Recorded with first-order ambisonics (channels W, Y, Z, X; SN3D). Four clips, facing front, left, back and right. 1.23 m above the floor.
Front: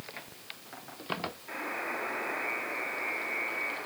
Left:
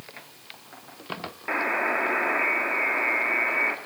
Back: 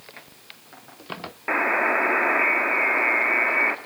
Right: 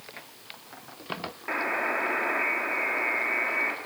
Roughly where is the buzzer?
Behind.